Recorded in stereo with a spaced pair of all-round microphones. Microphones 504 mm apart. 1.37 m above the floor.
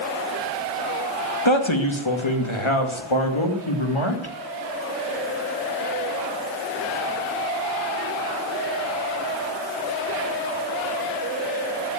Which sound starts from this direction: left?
A man speaking, at 1.4 s.